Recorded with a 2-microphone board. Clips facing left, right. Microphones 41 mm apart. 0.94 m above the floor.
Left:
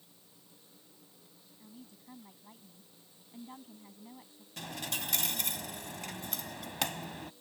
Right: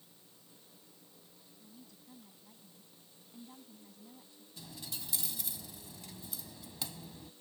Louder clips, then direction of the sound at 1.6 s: Left 5 dB; 35° left (ahead or behind).